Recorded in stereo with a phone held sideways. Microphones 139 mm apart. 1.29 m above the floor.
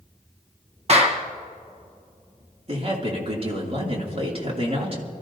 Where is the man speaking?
45° right (ahead or behind), 2.5 m.